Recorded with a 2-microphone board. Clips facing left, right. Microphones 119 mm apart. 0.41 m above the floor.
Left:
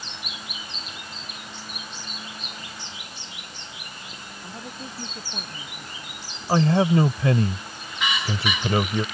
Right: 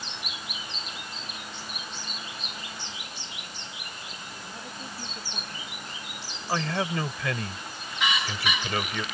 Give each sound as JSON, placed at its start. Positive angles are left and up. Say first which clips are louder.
{"t": 4.4, "sound": "a woman speaking", "louder": "left 5 dB", "side_deg": 20}
{"t": 6.5, "sound": "a man speaking", "louder": "left 9 dB", "side_deg": 30}